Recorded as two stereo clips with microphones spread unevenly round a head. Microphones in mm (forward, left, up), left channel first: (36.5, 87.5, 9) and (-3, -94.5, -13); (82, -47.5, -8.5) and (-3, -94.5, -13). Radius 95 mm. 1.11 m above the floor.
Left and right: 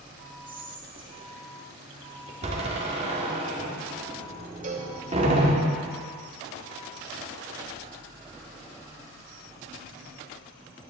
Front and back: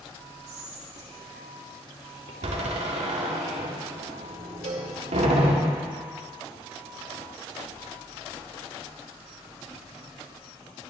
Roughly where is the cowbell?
Behind right.